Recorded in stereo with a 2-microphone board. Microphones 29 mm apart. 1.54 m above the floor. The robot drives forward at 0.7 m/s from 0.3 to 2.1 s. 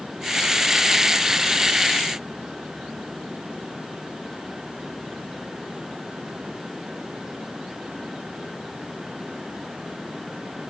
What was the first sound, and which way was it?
Only background noise.